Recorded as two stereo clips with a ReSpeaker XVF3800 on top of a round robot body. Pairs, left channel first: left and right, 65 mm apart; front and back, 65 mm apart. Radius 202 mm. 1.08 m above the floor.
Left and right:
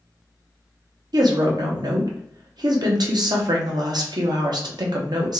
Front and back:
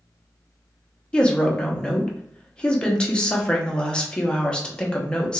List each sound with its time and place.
1.1 s a woman speaking: 75° right, 0.9 m